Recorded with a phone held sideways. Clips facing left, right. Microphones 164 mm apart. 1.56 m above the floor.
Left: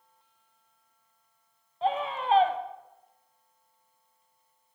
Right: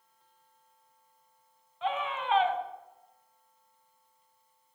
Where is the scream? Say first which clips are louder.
Left 4 dB; 35° left (ahead or behind), 1.0 m.